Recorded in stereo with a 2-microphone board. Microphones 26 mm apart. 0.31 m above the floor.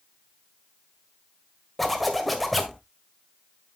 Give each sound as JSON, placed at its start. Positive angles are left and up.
{"t": 1.8, "sound": "a zipper", "side_deg": 5, "distance_m": 1.7}